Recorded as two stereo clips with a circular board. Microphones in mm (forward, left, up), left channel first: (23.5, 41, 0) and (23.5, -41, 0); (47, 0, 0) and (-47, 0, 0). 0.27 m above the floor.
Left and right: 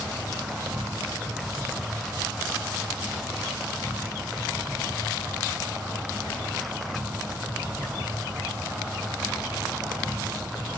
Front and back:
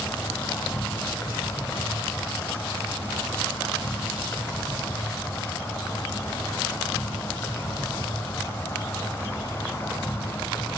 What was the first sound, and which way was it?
An insect, 30° right.